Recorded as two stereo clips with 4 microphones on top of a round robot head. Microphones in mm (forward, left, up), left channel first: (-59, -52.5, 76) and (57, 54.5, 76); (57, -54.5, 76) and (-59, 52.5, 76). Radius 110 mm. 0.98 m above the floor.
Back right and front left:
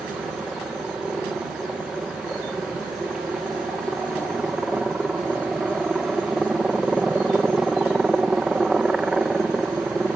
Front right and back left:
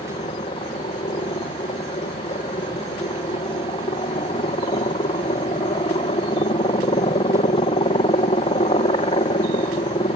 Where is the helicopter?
40° right.